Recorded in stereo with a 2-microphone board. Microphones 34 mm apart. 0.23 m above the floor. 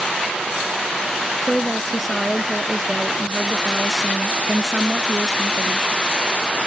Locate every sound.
1.4 s a woman speaking: 5° left (ahead or behind)